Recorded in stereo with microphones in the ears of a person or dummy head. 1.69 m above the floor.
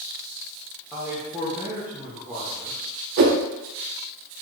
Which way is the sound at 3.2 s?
55° right (ahead or behind).